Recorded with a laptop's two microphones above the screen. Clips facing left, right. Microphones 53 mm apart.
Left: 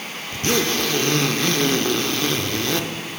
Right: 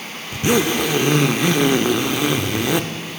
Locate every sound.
0.3 s a zipper: 15° right (ahead or behind), 0.5 m